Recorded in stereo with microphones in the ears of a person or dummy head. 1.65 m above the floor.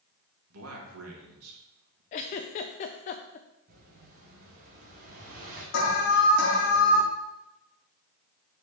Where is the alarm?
60° left (ahead or behind), 1.7 m.